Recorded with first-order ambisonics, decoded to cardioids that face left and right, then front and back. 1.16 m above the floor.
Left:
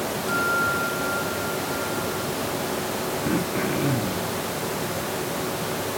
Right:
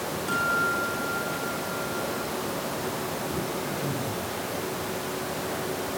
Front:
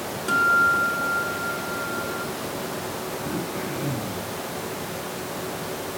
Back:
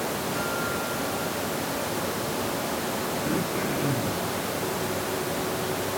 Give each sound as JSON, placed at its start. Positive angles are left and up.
{"t": 0.3, "sound": "a guitar", "azimuth_deg": 0, "distance_m": 7.5}
{"t": 3.2, "sound": "throat clearing", "azimuth_deg": 100, "distance_m": 2.5}